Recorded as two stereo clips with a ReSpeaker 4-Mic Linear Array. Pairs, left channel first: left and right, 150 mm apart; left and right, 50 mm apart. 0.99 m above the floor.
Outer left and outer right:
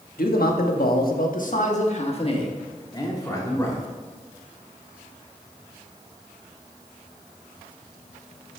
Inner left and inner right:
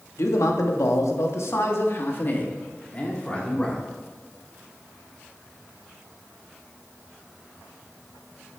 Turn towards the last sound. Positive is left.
turn(degrees=15)  # may be behind; listen again after turning